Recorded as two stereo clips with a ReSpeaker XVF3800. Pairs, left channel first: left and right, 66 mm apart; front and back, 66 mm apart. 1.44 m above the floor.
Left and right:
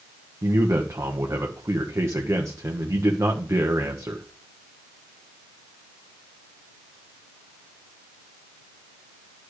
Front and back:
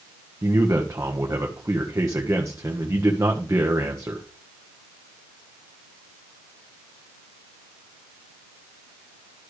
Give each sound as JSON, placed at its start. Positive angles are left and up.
{"t": 0.4, "sound": "a man speaking", "azimuth_deg": -135, "distance_m": 1.4}